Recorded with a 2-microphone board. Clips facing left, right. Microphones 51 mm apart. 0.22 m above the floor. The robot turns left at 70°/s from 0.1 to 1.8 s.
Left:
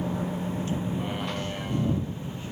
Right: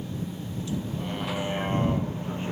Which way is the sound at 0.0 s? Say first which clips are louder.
Left 5 dB; 75° left (ahead or behind).